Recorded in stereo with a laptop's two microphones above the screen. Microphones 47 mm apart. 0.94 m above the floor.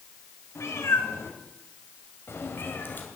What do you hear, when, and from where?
0.6 s a cat meowing: 80° left, 2.5 m; by 3.1 s 45° left (ahead or behind), 1.8 m